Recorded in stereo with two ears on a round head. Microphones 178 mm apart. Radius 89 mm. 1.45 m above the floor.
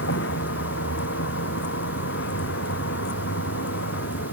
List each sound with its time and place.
0.0 s a vehicle: 65° left (ahead or behind)